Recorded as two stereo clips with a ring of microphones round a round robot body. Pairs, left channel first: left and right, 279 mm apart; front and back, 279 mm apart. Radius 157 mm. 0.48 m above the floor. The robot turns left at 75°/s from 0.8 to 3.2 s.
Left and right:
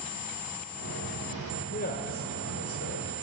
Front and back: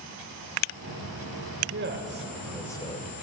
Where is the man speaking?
155° left, 1.8 m; by 3.1 s 45° left, 1.8 m.